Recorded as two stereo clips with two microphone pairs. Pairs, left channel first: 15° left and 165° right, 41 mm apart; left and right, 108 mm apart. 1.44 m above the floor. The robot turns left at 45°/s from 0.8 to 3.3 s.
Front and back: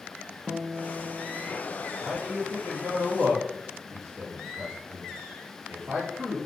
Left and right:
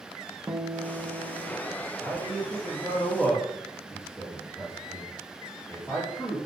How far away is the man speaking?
About 2.5 m.